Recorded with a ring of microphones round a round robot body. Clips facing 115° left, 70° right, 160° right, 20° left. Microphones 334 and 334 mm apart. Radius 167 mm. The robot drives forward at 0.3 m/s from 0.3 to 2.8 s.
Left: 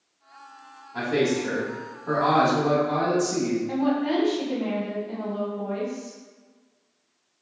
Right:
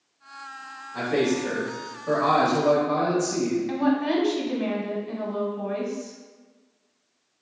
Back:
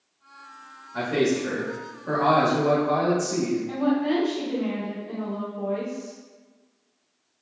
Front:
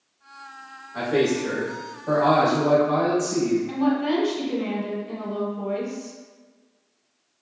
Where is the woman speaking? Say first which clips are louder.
Right 1 dB, front 1 dB; 50° right, 1.1 m.